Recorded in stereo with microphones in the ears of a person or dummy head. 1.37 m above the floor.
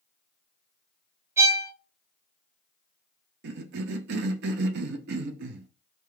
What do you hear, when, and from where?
1.4 s a violin: 20° right (ahead or behind), 0.8 m
3.4 s a cough: 65° right (ahead or behind), 0.5 m